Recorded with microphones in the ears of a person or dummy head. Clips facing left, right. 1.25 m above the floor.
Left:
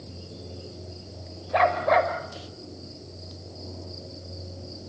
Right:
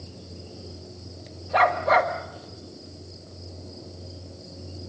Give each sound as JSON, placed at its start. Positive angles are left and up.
{"t": 1.5, "sound": "a dog barking", "side_deg": -5, "distance_m": 1.3}